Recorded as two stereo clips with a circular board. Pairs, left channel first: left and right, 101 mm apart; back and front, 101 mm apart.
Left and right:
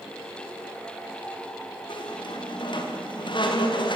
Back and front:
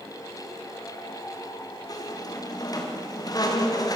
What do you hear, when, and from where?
1.9 s a squeak: 130° left, 4 m